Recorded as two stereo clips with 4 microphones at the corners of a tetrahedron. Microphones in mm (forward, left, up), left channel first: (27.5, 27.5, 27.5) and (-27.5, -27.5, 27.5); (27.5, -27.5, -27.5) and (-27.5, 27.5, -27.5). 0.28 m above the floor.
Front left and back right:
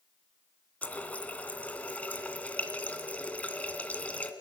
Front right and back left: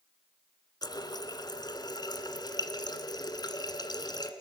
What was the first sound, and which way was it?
A running tap, 25° right.